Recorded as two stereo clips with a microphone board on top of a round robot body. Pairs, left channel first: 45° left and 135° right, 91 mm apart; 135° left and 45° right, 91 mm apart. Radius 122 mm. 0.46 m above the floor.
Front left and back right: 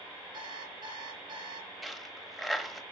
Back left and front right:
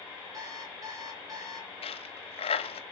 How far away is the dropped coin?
About 1.4 m.